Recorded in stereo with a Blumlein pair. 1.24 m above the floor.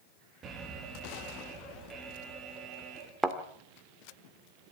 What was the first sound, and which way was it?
An alarm, 25° right.